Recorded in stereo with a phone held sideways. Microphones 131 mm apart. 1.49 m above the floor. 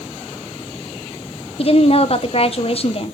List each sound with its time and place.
1.6 s a woman speaking: 45° left (ahead or behind), 1.1 m